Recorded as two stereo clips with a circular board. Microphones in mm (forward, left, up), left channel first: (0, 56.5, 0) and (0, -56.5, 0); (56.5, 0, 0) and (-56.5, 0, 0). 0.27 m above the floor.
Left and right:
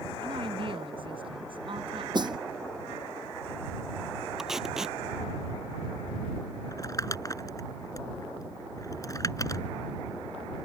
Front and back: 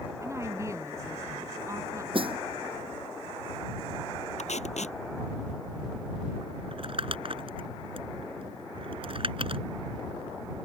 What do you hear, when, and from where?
0.2 s a woman speaking: 120° right
2.1 s a snare drum: 140° right
4.4 s tape being pulled: 5° right
6.7 s crumpling: 145° left